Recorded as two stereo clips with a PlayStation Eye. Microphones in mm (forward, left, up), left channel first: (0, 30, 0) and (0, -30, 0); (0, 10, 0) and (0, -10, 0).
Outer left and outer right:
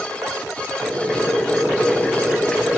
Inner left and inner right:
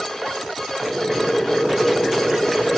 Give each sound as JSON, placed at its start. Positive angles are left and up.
{"t": 0.8, "sound": "boiling", "side_deg": 15, "distance_m": 3.0}